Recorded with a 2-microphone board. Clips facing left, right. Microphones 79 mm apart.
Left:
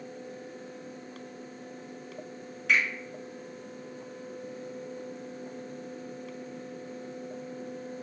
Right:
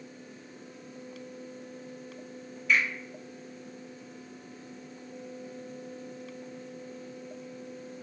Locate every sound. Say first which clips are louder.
2.7 s a finger snap: even; 70° left (ahead or behind), 1.5 m